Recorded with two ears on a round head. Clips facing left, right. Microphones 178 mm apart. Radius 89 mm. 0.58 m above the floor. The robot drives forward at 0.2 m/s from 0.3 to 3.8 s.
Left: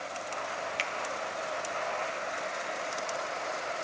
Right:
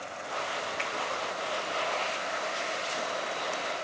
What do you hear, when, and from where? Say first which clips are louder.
0.8 s a finger snap: right 1 dB; 40° left (ahead or behind), 0.6 m